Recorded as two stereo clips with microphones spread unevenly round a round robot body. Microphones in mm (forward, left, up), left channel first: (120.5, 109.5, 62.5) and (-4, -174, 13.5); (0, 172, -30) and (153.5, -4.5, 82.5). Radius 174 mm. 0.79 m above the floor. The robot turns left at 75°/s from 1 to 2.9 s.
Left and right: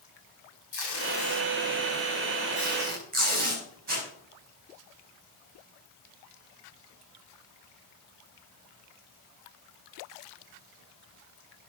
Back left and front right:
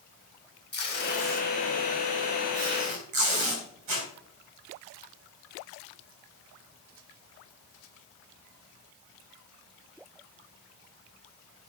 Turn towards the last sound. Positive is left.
turn(degrees=-50)